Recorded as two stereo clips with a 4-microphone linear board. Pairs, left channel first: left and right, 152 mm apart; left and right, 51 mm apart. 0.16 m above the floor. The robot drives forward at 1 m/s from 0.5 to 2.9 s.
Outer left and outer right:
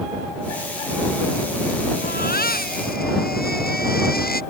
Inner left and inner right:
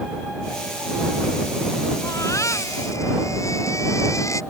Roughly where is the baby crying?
Left.